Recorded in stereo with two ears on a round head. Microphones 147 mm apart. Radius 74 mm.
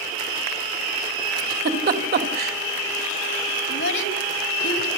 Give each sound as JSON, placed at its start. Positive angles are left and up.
{"t": 1.4, "sound": "a giggle", "side_deg": -65, "distance_m": 3.0}
{"t": 3.7, "sound": "a child speaking", "side_deg": 70, "distance_m": 2.5}